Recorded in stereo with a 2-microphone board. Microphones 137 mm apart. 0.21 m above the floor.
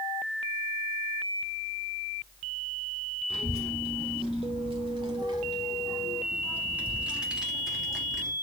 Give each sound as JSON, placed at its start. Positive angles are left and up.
{"t": 3.3, "sound": "a child speaking", "side_deg": -40, "distance_m": 1.2}